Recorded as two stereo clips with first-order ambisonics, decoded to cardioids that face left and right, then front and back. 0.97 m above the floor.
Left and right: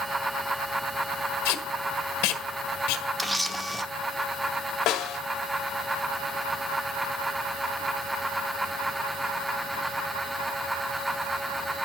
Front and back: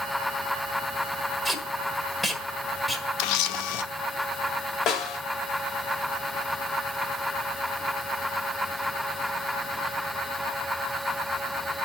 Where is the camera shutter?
5° right, 0.9 m.